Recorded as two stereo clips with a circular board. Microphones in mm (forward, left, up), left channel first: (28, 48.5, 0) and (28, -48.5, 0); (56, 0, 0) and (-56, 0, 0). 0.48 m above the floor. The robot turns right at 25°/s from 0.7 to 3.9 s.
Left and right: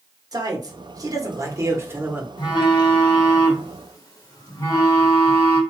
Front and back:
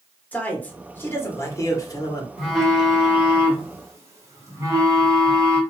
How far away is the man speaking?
About 1.0 m.